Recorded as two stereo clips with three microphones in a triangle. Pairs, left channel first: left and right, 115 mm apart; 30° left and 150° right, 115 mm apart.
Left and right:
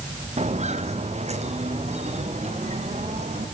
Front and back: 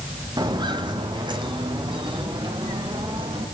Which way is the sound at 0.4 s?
95° right.